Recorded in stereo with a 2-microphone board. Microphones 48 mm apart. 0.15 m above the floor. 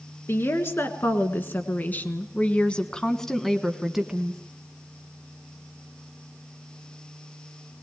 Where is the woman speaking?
55° left (ahead or behind), 2 m; by 4.4 s 15° right (ahead or behind), 1.4 m.